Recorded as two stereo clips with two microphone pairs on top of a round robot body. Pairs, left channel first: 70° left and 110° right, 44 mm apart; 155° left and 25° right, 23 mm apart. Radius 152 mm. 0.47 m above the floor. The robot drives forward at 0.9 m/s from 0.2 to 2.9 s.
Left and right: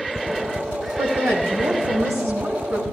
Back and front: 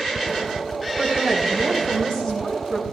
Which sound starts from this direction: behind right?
A woman speaking, at 1.0 s.